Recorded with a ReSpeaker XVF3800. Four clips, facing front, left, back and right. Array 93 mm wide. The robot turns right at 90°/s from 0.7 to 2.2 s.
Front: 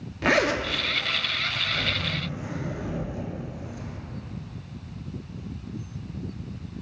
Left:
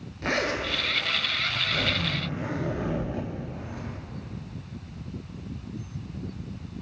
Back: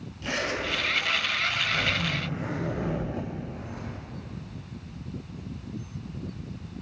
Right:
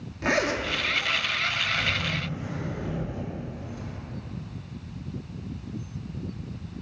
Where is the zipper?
5° right, 0.7 m; by 4.0 s 130° left, 0.7 m.